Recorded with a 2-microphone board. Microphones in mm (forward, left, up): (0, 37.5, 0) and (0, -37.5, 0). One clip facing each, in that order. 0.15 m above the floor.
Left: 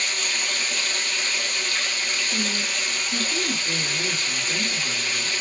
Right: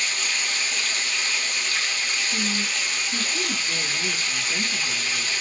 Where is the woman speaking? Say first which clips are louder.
Even; 45° left (ahead or behind), 1.6 m.